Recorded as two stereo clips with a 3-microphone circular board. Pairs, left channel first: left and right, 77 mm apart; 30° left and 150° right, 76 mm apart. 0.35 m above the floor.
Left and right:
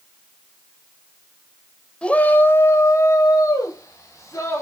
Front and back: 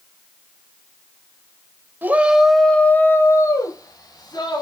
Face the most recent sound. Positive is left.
turn(degrees=45)